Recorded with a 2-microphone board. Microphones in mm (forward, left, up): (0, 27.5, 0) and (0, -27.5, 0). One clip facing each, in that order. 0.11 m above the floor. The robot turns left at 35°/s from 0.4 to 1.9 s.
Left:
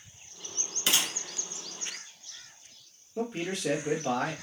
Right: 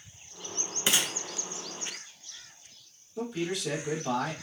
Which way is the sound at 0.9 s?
20° right (ahead or behind).